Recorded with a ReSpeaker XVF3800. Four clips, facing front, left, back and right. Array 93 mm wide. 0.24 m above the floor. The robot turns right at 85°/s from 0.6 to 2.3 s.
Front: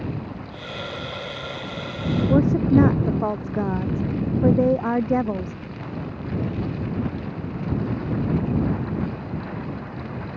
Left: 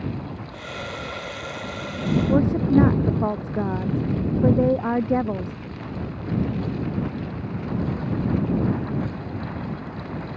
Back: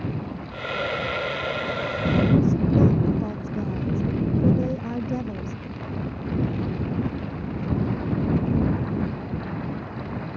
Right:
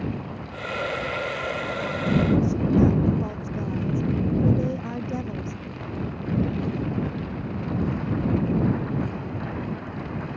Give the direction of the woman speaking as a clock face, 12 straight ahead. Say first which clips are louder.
Left 3 dB, front 3 dB; 11 o'clock.